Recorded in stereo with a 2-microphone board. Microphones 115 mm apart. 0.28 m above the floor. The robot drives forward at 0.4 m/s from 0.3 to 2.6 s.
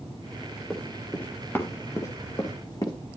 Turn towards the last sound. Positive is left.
turn(degrees=35)  # may be behind; listen again after turning